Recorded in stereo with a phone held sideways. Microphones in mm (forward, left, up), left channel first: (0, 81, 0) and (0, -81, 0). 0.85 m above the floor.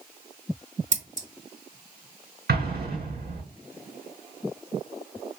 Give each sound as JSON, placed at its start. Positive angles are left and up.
{"t": 0.9, "sound": "scissors", "side_deg": -50, "distance_m": 0.9}
{"t": 2.5, "sound": "an explosion", "side_deg": -85, "distance_m": 4.0}